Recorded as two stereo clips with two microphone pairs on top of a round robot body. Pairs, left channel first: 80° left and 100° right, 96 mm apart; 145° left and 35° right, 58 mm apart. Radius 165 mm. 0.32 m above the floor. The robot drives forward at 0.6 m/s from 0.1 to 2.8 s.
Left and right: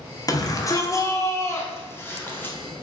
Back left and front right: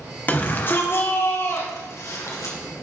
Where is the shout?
95° left, 1.7 m; by 2.5 s 145° left, 2 m.